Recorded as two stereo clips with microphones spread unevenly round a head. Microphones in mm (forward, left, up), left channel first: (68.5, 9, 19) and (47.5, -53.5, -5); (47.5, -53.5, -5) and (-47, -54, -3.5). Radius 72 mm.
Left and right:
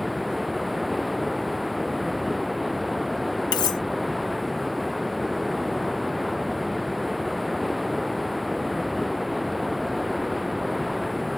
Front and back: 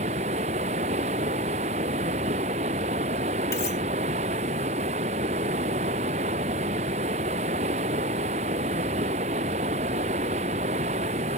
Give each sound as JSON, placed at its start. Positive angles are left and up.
{"t": 0.0, "sound": "running water", "azimuth_deg": 160}
{"t": 3.5, "sound": "cutlery clinking", "azimuth_deg": 70}